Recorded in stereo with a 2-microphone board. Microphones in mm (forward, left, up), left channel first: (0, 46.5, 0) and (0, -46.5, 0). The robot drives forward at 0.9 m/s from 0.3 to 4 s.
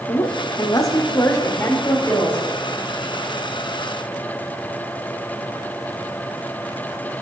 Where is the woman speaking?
40° left (ahead or behind), 0.9 m; by 2.4 s 20° left (ahead or behind), 2.0 m.